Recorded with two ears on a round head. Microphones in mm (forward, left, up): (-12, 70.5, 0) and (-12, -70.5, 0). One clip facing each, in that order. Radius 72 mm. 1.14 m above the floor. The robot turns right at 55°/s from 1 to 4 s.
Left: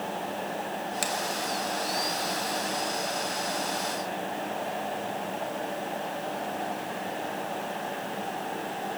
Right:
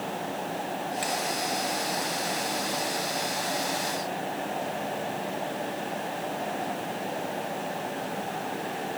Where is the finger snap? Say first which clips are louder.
Right 1 dB; 55° left (ahead or behind), 2 m; by 1.1 s 50° left (ahead or behind), 2 m.